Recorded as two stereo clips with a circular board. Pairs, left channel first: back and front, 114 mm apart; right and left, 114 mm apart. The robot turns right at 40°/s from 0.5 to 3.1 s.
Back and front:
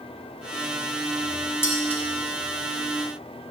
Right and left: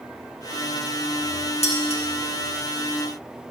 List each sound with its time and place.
1.6 s dishes clattering: 110° right, 3 m; by 2.0 s 95° right, 3 m